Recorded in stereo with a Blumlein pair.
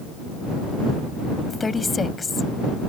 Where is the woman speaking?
10° left.